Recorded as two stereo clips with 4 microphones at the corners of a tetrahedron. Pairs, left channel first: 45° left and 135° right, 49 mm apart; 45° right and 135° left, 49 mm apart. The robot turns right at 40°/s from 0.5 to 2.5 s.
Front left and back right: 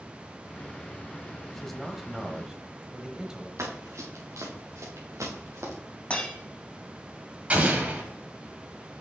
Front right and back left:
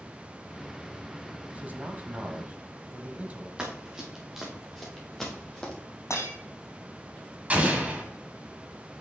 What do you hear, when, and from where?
1.5 s a man speaking: 125° left, 1.1 m; by 3.5 s 165° left, 1.1 m
3.6 s running footsteps: 150° right, 2.5 m; by 5.7 s 120° right, 2.5 m
6.1 s breaking glass: 25° right, 3 m
7.5 s an explosion: straight behind, 1.6 m